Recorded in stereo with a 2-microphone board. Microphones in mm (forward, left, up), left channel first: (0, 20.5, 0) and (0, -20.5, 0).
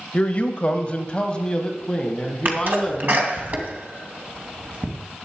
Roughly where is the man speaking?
Left.